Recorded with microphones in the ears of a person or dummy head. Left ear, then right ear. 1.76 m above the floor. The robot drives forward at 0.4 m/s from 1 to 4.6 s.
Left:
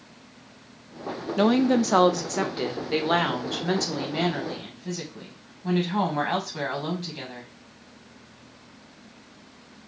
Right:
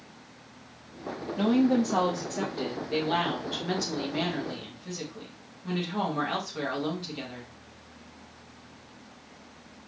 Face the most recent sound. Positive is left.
turn(degrees=30)  # may be behind; listen again after turning